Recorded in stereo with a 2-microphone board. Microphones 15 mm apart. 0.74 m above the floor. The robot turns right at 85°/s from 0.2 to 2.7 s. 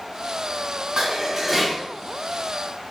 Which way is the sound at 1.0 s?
55° right.